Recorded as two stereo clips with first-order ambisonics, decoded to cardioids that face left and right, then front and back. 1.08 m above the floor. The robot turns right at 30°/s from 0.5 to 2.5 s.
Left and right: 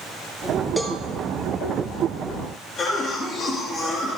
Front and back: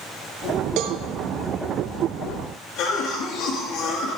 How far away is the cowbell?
About 1.1 m.